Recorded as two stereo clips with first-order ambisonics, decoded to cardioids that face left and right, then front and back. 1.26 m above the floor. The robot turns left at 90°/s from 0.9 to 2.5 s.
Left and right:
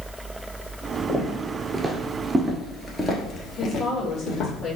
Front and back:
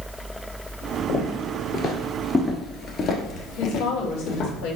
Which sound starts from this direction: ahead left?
A woman speaking, at 3.6 s.